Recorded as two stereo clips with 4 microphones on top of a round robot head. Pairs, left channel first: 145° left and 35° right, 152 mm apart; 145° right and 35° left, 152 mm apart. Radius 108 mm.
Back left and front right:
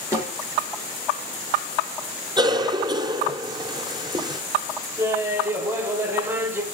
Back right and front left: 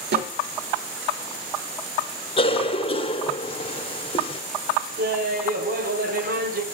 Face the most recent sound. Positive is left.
turn(degrees=40)